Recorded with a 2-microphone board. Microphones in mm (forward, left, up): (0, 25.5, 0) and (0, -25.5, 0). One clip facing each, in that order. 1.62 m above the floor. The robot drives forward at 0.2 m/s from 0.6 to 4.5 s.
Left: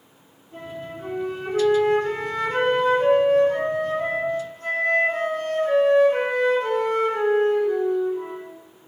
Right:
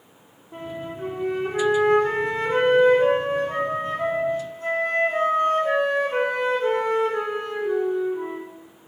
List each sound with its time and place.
0.5 s a flute: 35° right (ahead or behind), 0.8 m; by 8.4 s 20° right (ahead or behind), 1.5 m